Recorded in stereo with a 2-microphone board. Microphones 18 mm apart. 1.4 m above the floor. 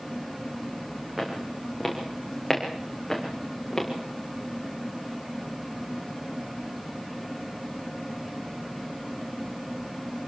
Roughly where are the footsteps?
Centre.